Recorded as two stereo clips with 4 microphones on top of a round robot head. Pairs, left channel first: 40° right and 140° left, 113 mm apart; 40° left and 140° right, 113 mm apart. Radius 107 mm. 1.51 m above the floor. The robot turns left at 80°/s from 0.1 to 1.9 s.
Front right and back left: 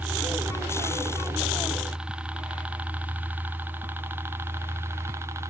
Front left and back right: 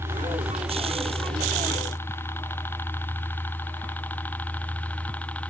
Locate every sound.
0.0 s a helicopter: 165° right; by 5.5 s 105° left